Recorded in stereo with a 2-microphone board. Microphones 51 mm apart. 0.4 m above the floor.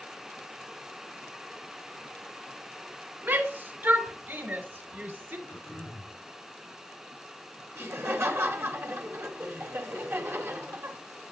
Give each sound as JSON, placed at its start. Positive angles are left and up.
{"t": 3.2, "sound": "a shout", "side_deg": -45, "distance_m": 3.0}
{"t": 5.5, "sound": "throat clearing", "side_deg": 40, "distance_m": 4.0}
{"t": 7.7, "sound": "laughter", "side_deg": -55, "distance_m": 2.5}